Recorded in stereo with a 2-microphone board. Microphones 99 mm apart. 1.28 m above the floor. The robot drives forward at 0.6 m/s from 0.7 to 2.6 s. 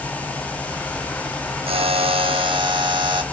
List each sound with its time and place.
1.7 s a buzzer: 70° right (ahead or behind), 0.7 m; by 3.2 s 55° right (ahead or behind), 0.8 m